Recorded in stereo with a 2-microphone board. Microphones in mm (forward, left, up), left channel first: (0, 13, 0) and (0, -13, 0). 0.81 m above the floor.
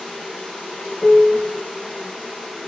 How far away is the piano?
About 0.6 m.